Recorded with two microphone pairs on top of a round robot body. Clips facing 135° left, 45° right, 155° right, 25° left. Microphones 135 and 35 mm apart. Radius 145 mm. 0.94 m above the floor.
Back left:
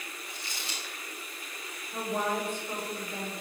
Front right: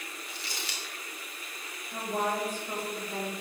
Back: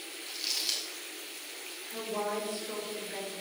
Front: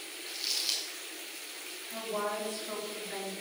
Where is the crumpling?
70° right, 1.0 m.